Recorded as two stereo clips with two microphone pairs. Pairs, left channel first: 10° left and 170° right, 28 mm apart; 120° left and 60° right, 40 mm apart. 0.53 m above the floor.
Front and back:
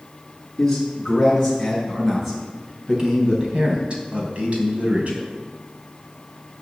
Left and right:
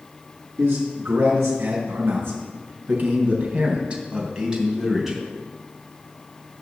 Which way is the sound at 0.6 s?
70° right.